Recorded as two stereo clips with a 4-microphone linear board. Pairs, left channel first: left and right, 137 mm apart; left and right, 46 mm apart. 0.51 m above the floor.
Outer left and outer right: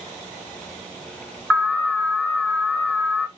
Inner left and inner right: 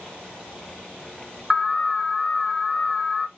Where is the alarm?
10° left (ahead or behind), 2.5 m.